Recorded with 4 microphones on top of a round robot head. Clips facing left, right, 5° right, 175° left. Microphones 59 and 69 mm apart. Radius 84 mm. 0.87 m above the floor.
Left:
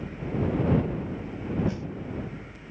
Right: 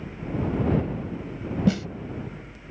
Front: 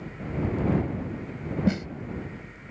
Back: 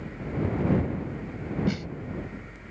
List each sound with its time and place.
1.7 s a snare drum: 75° right